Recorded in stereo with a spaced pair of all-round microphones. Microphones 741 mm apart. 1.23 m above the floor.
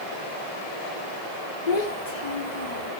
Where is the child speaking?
65° left (ahead or behind), 1.7 m; by 2.9 s 70° left (ahead or behind), 1.6 m.